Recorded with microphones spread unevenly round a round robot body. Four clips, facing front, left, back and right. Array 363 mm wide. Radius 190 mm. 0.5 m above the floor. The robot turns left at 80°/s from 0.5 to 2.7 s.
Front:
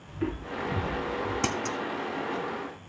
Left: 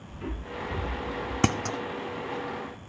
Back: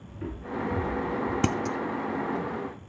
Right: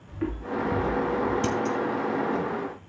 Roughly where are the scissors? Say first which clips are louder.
Right 2 dB, back 3 dB; left.